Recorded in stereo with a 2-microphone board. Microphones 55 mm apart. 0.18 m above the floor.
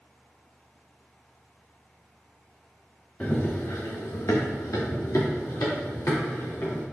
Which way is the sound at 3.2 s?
25° left (ahead or behind).